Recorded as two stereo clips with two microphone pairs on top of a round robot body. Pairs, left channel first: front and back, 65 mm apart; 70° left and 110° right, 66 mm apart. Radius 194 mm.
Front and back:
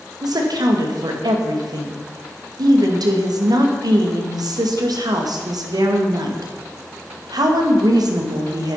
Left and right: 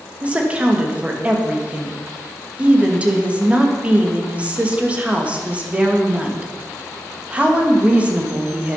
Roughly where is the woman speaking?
Behind.